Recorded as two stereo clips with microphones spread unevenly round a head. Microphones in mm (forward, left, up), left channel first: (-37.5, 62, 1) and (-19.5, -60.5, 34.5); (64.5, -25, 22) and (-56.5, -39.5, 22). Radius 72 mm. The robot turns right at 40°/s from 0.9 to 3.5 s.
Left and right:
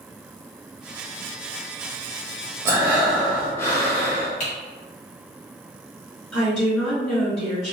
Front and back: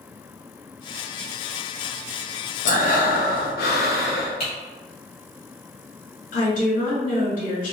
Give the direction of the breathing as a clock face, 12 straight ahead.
12 o'clock.